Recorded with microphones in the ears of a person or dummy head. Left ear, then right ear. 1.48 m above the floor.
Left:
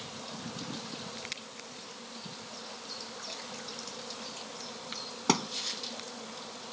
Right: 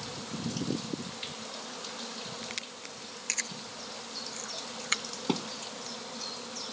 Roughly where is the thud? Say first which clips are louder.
Left 5 dB; left.